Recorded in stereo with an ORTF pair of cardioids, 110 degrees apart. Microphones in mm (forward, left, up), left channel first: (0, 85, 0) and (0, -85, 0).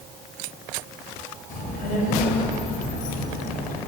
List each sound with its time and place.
1.5 s a child speaking: 55° left, 4 m